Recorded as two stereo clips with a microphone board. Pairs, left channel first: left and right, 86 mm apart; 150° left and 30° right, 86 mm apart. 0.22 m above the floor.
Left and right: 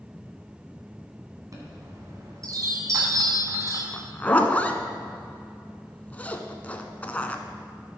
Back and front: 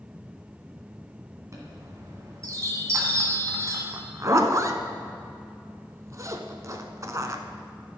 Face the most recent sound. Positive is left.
turn(degrees=20)